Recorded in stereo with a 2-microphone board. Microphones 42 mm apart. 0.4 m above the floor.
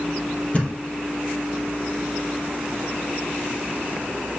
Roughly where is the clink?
No clink in this recording.